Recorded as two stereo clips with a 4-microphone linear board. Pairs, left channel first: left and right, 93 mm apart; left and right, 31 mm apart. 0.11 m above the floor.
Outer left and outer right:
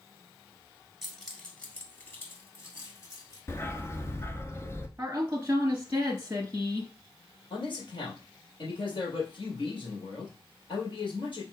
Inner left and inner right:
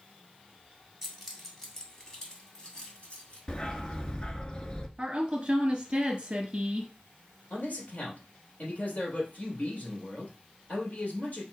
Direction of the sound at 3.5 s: 30° left (ahead or behind).